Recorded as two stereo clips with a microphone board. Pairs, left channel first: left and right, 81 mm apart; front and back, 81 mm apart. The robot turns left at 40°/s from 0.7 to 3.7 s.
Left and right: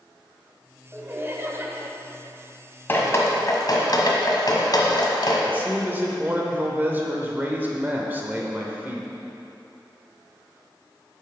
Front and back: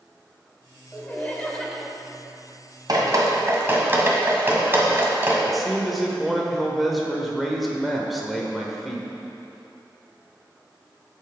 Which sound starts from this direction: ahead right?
Laughter, at 0.9 s.